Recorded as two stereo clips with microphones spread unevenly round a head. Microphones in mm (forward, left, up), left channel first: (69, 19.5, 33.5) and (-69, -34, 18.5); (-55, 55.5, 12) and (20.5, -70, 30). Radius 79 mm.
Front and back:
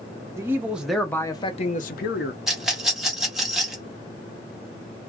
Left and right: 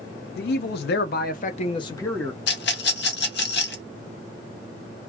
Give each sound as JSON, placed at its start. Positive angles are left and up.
{"t": 0.3, "sound": "a man speaking", "azimuth_deg": 130, "distance_m": 0.9}
{"t": 2.5, "sound": "a rattle", "azimuth_deg": 115, "distance_m": 0.8}